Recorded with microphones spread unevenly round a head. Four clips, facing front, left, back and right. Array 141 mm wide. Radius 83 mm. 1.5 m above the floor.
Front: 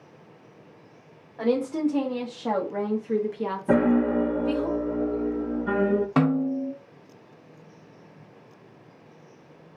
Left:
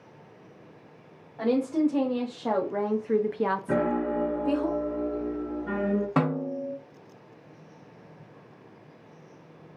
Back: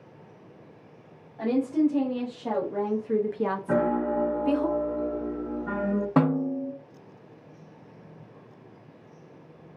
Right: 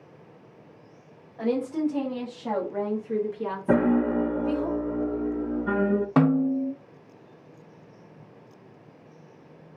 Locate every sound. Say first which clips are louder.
1.4 s a woman speaking: left 2 dB, even; 30° left, 1.3 m; by 4.7 s 135° left, 0.9 m
3.7 s a piano: right 4 dB, front 6 dB; 40° right, 0.6 m
6.2 s a snare drum: right 6 dB, front 1 dB; 110° right, 0.7 m